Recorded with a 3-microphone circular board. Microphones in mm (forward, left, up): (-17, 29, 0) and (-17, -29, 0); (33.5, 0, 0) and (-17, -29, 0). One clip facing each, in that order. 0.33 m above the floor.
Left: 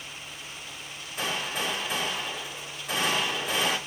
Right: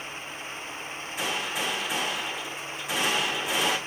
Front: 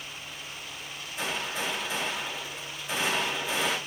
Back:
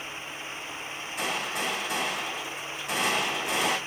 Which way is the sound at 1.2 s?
175° right.